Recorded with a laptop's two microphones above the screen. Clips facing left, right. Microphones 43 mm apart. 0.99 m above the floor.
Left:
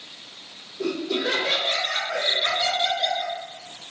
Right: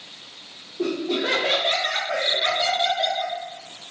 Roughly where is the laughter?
Right.